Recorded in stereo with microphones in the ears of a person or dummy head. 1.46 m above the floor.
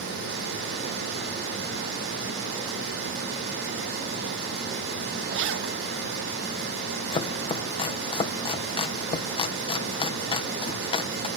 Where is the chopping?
35° left (ahead or behind).